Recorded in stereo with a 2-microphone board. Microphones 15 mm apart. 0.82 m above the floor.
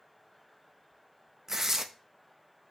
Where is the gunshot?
I don't hear a gunshot.